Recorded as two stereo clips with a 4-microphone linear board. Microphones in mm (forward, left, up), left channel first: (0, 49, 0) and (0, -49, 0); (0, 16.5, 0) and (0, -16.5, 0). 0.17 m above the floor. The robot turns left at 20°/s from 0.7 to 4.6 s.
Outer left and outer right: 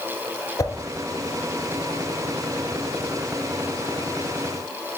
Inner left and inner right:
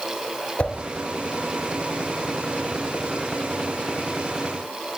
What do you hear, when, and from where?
0.6 s a whoosh: 35° left (ahead or behind), 1.0 m